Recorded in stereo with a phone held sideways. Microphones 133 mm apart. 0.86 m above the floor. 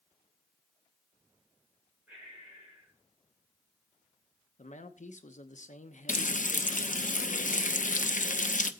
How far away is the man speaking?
About 0.9 m.